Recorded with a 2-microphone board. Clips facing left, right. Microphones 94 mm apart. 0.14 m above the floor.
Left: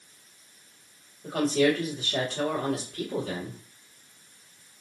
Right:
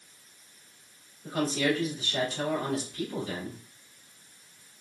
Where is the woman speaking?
60° left (ahead or behind), 3 m.